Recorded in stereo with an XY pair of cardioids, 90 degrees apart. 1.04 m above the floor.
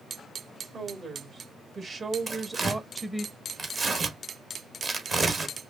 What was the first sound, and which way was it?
A woman speaking, 60° right.